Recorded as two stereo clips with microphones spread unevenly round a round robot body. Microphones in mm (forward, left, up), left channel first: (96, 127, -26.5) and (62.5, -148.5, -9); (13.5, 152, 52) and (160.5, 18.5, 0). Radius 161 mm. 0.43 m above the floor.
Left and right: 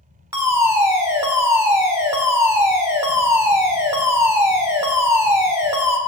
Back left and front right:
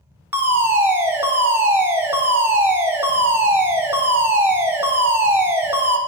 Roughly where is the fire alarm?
Ahead.